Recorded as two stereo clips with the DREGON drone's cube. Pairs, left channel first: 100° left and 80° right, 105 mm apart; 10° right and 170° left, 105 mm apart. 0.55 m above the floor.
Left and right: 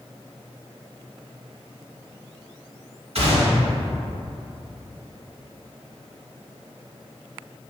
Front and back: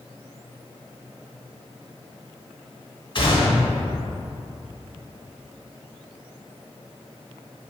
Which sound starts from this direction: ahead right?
A gunshot, at 3.1 s.